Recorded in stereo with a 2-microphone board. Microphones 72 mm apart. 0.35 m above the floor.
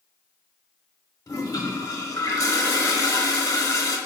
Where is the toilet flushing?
50° left (ahead or behind), 0.5 m.